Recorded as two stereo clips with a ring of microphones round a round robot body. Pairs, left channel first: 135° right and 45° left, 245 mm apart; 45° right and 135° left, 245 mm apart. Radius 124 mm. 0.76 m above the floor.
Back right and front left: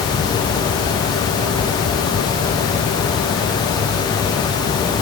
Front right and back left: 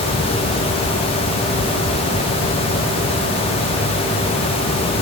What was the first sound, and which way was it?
Only background noise.